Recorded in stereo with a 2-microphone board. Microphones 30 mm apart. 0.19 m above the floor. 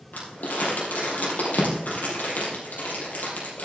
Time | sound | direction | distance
0.1 | crumpling | 75° left (ahead or behind) | 4 m